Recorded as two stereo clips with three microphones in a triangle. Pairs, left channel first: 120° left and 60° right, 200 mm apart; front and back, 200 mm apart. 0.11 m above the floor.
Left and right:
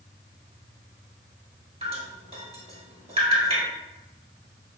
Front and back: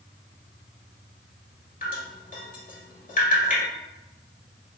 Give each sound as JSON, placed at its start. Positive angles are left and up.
{"t": 1.8, "sound": "dripping", "azimuth_deg": -15, "distance_m": 1.4}